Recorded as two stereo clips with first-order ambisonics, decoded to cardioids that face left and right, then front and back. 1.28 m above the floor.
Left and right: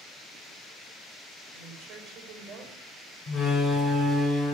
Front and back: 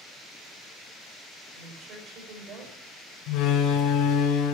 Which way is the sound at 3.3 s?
25° left.